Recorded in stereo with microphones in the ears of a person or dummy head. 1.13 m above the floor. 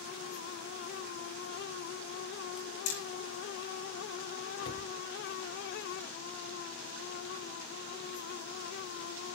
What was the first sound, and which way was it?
Hammering, 80° left.